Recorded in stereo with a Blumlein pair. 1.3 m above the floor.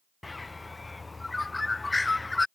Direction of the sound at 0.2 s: 10° left.